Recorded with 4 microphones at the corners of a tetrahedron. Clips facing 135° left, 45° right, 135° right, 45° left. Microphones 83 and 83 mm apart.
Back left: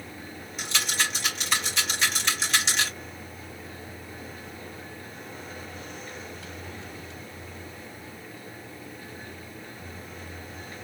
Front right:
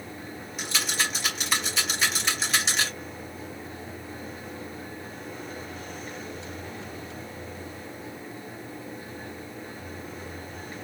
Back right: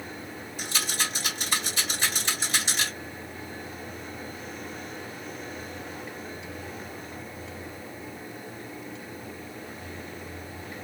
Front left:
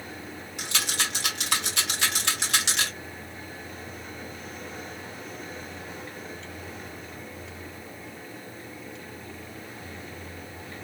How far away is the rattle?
About 2.5 m.